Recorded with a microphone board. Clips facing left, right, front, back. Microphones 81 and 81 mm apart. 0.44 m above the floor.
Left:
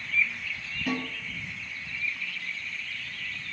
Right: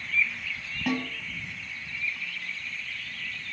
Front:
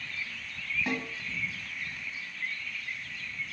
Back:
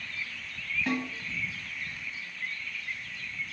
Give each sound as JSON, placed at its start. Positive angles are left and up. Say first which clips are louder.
{"t": 0.9, "sound": "a snare drum", "louder": "right 2 dB, back 4 dB", "azimuth_deg": -75, "distance_m": 1.6}